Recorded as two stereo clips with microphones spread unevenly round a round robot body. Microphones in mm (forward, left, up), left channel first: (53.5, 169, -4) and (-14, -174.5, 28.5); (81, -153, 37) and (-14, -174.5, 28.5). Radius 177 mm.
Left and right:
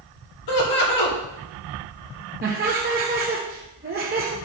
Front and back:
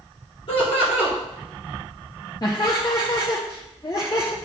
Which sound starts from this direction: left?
Laughter, at 0.5 s.